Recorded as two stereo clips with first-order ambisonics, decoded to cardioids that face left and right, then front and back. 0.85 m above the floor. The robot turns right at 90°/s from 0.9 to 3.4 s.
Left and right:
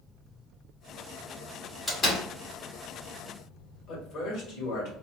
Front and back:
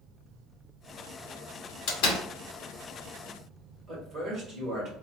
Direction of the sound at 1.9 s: 5° left.